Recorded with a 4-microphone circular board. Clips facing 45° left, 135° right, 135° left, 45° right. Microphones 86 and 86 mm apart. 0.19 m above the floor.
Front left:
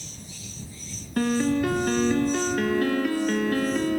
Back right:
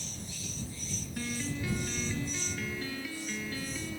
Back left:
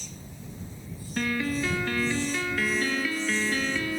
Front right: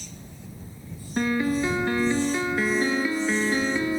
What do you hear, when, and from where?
1.2 s a piano: 25° left